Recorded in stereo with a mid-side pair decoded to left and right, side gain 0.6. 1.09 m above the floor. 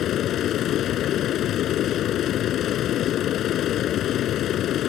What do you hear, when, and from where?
0.0 s a machine running: 55° left